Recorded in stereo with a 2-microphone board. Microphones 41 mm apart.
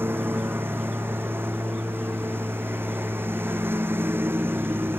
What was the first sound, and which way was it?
A lawn mower, 70° right (ahead or behind).